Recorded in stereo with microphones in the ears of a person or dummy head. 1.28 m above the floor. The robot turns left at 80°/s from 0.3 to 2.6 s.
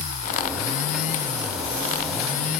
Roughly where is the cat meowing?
I don't hear a cat meowing.